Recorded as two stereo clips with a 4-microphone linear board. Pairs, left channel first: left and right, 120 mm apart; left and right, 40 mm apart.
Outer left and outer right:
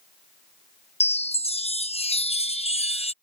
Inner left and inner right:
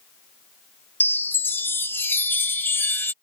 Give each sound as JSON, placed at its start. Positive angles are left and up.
{"t": 1.0, "sound": "a chime", "side_deg": 60}